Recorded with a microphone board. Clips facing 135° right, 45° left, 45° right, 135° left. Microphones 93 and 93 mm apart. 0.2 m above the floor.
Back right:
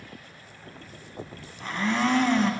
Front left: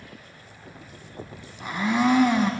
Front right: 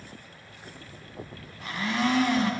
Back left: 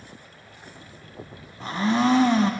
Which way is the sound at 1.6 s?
115° left.